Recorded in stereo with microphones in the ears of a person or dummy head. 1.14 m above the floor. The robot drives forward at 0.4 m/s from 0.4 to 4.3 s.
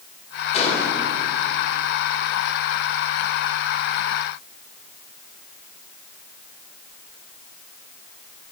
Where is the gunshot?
35° left (ahead or behind), 3 m.